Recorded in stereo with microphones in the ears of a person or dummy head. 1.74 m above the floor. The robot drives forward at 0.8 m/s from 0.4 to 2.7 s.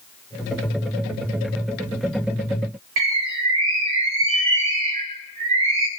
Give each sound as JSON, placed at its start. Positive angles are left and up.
{"t": 3.0, "sound": "a bird", "side_deg": -30, "distance_m": 0.7}